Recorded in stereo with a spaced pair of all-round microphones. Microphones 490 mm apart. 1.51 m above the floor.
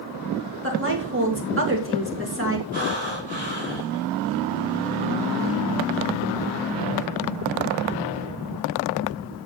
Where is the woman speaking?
25° right (ahead or behind), 3 m.